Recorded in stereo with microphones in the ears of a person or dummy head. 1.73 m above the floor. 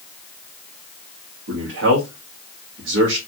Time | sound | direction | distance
1.5 | a man speaking | 70° right (ahead or behind) | 1.1 m